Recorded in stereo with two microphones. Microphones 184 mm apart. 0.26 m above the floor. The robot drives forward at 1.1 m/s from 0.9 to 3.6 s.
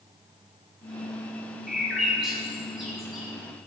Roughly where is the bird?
Centre.